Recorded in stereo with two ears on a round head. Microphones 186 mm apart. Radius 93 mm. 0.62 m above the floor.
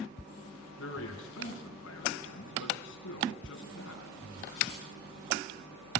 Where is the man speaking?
65° left (ahead or behind), 5.5 m.